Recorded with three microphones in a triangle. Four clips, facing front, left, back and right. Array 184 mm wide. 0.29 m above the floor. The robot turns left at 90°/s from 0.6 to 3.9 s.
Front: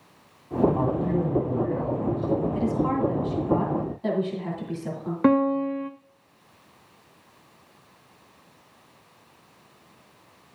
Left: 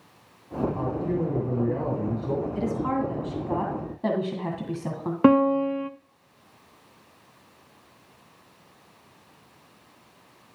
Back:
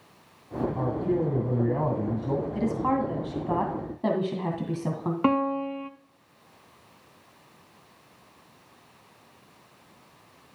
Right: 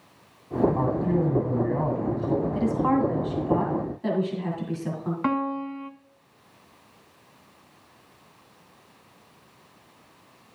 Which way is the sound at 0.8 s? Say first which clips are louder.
Right 3 dB, front 2 dB; 45° right.